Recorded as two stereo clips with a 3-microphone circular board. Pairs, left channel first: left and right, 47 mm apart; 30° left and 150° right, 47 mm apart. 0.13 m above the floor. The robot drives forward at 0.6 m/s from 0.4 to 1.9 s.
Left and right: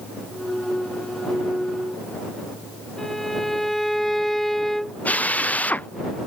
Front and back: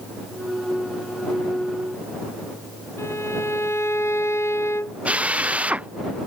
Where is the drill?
145° left.